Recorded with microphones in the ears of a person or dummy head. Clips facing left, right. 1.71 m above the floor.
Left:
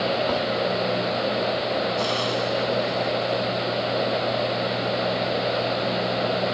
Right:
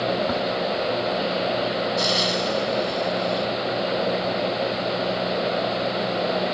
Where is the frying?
30° right (ahead or behind).